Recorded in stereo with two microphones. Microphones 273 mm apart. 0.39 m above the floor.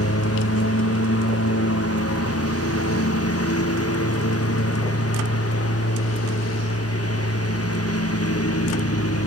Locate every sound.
0.0 s a lawn mower: 60° left (ahead or behind)